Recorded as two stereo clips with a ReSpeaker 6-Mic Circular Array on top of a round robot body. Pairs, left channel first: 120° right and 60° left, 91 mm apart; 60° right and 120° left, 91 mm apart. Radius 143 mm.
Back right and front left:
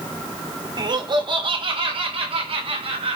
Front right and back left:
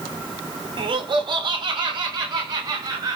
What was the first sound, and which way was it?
Laughter, 100° left.